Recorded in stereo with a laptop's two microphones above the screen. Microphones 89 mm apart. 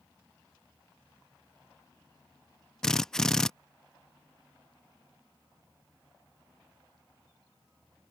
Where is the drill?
5° left (ahead or behind).